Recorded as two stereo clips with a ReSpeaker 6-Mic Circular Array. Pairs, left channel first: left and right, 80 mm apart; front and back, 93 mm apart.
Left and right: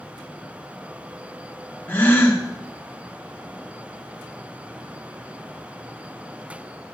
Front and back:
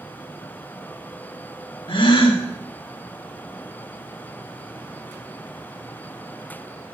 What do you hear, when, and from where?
1.9 s a gasp: 25° left, 1.8 m